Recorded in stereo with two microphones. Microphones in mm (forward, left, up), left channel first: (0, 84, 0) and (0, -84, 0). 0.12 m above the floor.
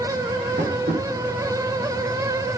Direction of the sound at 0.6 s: 75° right (ahead or behind).